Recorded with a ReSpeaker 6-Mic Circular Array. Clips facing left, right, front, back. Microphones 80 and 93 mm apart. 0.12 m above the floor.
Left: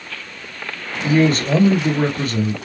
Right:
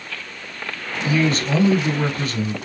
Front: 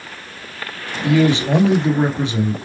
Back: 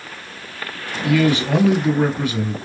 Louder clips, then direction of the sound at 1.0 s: Left 4 dB, front 2 dB; 60° left.